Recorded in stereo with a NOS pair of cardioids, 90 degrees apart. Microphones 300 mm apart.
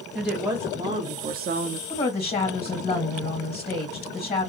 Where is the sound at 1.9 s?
20° left, 1.7 m.